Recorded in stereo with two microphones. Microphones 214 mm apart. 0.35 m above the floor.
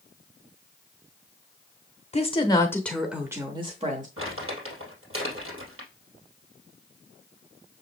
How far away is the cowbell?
I don't hear a cowbell.